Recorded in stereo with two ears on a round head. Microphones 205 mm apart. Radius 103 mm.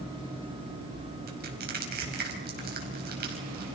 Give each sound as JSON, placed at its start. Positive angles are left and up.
{"t": 1.3, "sound": "crushing", "side_deg": -45, "distance_m": 4.5}